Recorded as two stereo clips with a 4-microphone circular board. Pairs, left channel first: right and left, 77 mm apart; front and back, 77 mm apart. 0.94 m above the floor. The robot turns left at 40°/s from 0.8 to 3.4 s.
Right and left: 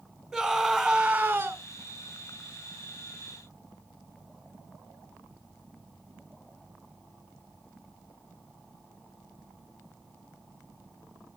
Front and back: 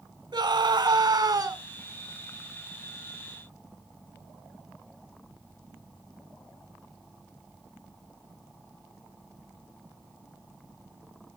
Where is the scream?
Straight behind, 3 m; by 1.6 s 150° left, 3 m.